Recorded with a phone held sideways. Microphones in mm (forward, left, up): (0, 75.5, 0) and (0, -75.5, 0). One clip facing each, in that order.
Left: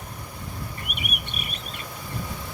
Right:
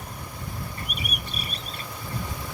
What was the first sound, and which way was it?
A bird, 35° right (ahead or behind).